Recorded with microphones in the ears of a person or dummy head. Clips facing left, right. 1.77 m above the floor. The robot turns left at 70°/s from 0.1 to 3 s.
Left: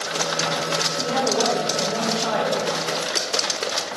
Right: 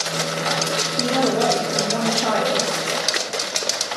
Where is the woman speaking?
35° right, 1.5 m; by 2.7 s 155° right, 1.5 m.